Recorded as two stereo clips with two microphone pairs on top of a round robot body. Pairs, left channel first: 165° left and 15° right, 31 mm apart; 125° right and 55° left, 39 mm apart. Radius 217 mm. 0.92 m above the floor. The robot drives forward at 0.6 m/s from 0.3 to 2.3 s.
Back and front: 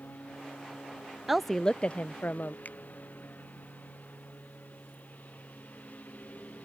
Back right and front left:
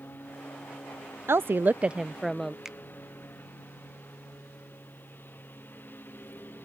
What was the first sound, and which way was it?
A lawn mower, 165° right.